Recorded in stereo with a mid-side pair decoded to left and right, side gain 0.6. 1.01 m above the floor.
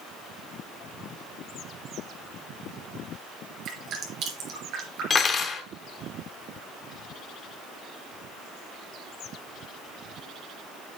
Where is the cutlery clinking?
30° left, 1.4 m.